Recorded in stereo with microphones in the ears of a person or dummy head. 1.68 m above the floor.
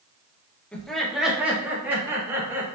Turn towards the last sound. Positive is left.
turn(degrees=-15)  # may be behind; listen again after turning